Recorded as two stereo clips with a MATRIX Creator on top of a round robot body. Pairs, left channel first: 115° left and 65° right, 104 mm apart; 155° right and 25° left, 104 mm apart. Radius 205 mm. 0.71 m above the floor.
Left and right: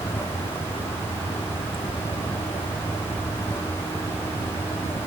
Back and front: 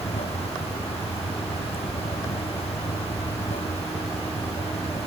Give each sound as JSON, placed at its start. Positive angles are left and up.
{"t": 0.0, "sound": "running water", "azimuth_deg": 180}